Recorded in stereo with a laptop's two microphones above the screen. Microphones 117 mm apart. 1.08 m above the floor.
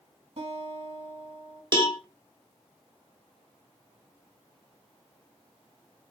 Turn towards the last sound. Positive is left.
turn(degrees=-40)  # may be behind; listen again after turning